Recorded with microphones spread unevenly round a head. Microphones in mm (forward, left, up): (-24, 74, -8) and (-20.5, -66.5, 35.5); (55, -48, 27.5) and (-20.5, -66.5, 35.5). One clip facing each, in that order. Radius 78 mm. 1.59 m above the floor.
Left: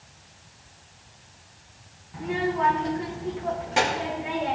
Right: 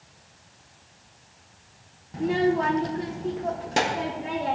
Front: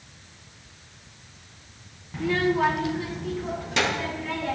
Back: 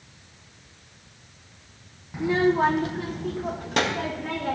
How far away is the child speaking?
About 0.6 m.